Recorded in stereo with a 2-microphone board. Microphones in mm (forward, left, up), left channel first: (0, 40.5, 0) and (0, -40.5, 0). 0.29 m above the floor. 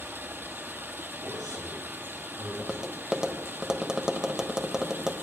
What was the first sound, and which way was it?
Running water, 25° right (ahead or behind).